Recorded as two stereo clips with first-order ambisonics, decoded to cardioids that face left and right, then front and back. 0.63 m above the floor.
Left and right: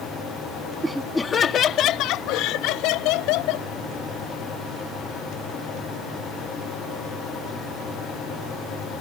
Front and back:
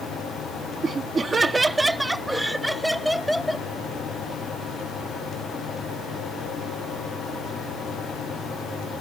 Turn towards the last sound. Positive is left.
turn(degrees=90)